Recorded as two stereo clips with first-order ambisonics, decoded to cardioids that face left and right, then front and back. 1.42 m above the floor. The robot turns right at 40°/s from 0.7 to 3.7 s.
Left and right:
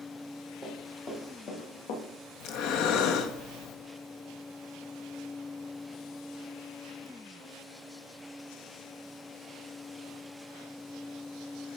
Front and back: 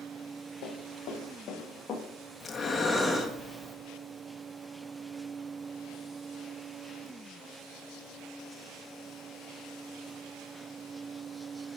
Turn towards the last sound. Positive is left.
turn(degrees=125)